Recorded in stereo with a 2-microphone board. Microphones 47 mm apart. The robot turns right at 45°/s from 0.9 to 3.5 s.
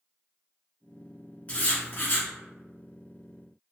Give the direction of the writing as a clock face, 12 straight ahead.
11 o'clock.